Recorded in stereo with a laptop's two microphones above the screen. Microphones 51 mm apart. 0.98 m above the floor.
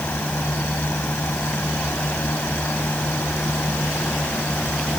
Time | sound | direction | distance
0.0 | a fan | 40° left (ahead or behind) | ?